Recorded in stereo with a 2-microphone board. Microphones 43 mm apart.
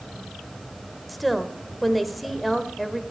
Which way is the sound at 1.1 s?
Centre (ahead or behind).